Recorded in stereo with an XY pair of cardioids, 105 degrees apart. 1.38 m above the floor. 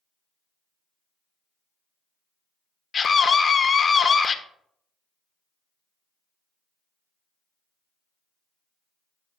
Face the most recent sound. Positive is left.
turn(degrees=40)